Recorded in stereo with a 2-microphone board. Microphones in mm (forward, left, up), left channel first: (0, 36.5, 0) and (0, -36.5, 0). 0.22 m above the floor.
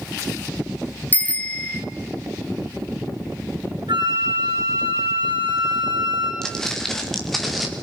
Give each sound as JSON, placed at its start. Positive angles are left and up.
{"t": 1.1, "sound": "a bicycle bell", "side_deg": 25, "distance_m": 2.5}
{"t": 3.9, "sound": "a flute", "side_deg": -80, "distance_m": 9.0}
{"t": 6.4, "sound": "footsteps", "side_deg": 5, "distance_m": 5.0}